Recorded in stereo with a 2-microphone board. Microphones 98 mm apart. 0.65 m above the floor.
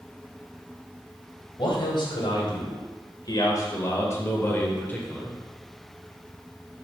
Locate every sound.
1.6 s a man speaking: 55° left (ahead or behind), 2.5 m; by 5.4 s 10° left (ahead or behind), 1.9 m